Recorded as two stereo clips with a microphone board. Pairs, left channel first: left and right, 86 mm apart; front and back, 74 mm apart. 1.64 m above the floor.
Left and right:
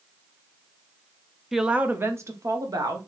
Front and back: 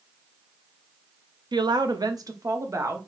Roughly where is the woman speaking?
Behind.